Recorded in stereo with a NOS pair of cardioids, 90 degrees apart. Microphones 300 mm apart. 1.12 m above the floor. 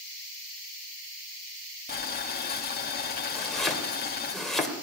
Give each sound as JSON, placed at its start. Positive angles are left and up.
{"t": 1.9, "sound": "boiling", "azimuth_deg": 30, "distance_m": 1.9}
{"t": 3.4, "sound": "chopping", "azimuth_deg": 0, "distance_m": 3.0}